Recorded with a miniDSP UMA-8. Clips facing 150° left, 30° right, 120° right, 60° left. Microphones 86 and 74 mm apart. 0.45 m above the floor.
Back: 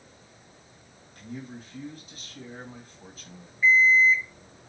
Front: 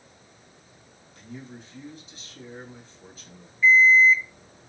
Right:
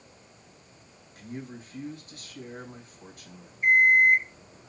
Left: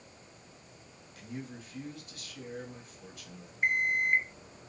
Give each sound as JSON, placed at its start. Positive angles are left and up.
{"t": 1.1, "sound": "a man speaking", "azimuth_deg": -170, "distance_m": 3.5}
{"t": 3.6, "sound": "an alarm clock", "azimuth_deg": 80, "distance_m": 1.6}